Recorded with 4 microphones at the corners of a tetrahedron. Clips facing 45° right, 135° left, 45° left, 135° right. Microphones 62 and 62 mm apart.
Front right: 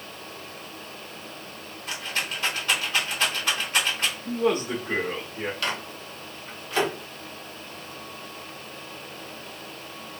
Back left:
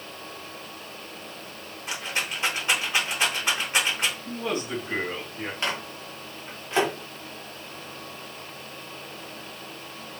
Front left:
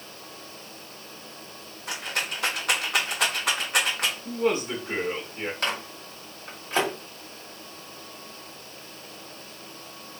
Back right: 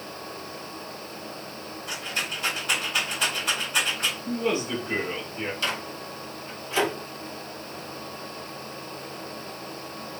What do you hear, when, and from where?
1.9 s a rattle: 65° left, 0.9 m
4.2 s a man speaking: 15° right, 1.3 m
5.6 s a microwave: 75° left, 1.1 m